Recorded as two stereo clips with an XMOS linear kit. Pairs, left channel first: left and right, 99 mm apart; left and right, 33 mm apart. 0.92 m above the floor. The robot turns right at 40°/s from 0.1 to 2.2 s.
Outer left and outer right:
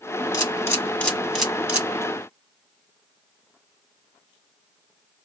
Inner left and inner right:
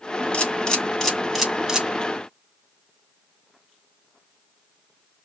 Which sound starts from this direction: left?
A camera shutter, at 0.3 s.